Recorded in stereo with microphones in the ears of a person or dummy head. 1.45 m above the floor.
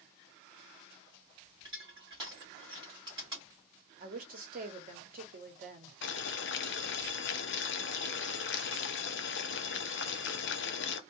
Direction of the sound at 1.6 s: 15° right (ahead or behind).